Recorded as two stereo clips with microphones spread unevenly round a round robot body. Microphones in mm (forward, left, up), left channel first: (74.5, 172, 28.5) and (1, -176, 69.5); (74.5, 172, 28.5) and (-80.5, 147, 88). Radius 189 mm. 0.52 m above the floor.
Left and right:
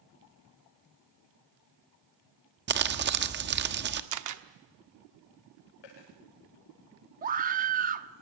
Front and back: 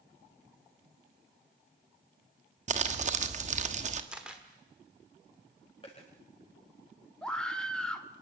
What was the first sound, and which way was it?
Crumpling, 140° right.